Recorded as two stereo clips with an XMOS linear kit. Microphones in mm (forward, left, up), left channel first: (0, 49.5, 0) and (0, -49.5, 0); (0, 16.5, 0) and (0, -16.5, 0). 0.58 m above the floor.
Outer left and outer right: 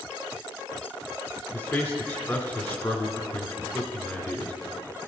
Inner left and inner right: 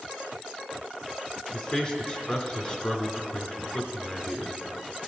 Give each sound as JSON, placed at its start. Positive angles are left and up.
{"t": 1.5, "sound": "a man speaking", "side_deg": 25, "distance_m": 1.6}